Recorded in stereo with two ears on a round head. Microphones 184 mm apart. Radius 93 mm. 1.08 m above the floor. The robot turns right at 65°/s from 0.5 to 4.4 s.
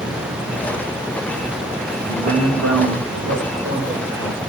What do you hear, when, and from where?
1.9 s a man speaking: 145° right, 3.5 m; by 4.4 s 15° left, 3.5 m